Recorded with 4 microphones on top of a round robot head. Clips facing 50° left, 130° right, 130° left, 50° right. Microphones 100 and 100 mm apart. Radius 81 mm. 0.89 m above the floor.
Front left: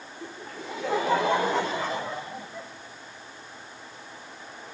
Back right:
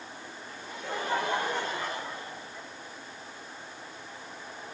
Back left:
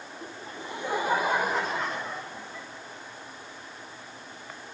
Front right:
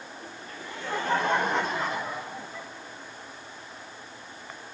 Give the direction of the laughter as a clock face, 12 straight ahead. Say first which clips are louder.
Front left 5 dB, back left 5 dB; 10 o'clock.